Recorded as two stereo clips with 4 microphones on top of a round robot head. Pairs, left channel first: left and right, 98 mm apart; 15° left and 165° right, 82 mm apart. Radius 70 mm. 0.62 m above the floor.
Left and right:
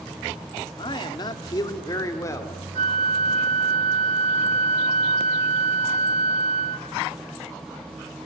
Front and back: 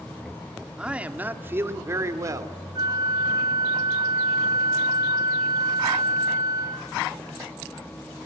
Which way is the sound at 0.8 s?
115° left.